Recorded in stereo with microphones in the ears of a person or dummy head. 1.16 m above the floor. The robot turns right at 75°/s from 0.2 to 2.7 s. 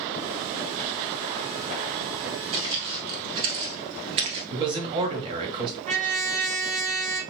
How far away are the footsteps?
About 2 m.